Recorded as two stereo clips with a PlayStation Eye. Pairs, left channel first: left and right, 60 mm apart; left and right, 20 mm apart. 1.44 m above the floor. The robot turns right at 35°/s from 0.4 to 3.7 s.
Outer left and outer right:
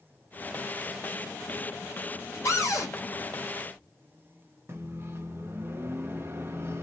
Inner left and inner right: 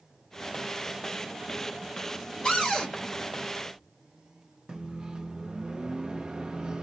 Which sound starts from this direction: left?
A cupboard door, at 2.5 s.